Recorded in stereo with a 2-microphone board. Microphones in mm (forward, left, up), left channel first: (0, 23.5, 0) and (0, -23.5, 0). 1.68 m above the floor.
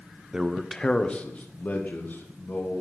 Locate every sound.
0.3 s a man speaking: 20° right (ahead or behind), 0.8 m; by 2.8 s 45° left (ahead or behind), 3.5 m